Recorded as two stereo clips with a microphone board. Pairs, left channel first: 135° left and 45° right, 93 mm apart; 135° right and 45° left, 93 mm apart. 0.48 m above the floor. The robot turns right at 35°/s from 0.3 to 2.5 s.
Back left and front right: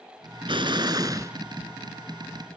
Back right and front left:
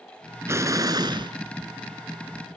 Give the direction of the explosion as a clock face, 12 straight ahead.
1 o'clock.